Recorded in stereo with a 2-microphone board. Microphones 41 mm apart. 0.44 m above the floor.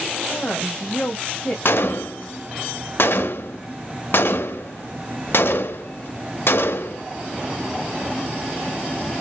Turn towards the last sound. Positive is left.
turn(degrees=60)  # may be behind; listen again after turning